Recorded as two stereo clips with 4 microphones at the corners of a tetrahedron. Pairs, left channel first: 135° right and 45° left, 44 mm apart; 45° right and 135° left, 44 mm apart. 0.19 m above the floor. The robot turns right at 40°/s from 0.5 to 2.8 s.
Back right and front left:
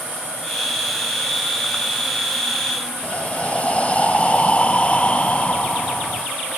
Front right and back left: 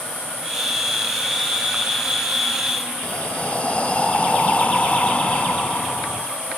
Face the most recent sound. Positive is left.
turn(degrees=-90)